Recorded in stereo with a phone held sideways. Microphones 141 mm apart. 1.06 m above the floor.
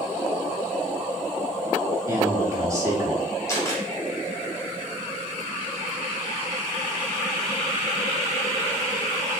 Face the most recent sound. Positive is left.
turn(degrees=20)  # may be behind; listen again after turning